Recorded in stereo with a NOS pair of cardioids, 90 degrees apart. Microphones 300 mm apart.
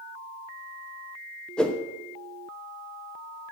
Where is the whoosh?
5° left, 0.8 m.